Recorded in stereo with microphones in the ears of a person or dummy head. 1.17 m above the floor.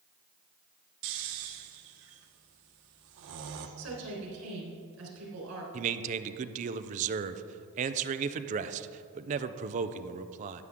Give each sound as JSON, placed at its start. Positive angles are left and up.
{"t": 1.0, "sound": "snoring", "side_deg": -65, "distance_m": 1.0}
{"t": 3.8, "sound": "a woman speaking", "side_deg": -85, "distance_m": 4.0}
{"t": 5.7, "sound": "a man speaking", "side_deg": -40, "distance_m": 0.6}